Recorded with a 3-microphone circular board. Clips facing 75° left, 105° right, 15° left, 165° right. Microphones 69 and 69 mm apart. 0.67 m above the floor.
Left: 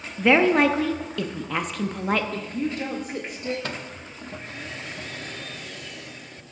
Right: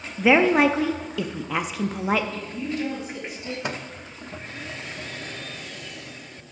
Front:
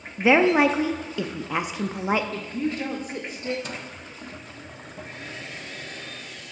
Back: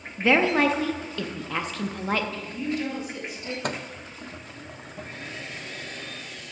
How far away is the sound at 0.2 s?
About 0.5 m.